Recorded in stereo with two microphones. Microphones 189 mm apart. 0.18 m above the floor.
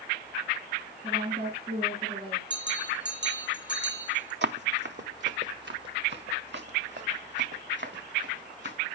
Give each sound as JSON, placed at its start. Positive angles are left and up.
{"t": 1.0, "sound": "a woman speaking", "side_deg": -30, "distance_m": 2.0}
{"t": 2.5, "sound": "a bell", "side_deg": -70, "distance_m": 1.9}
{"t": 4.4, "sound": "running footsteps", "side_deg": -70, "distance_m": 0.7}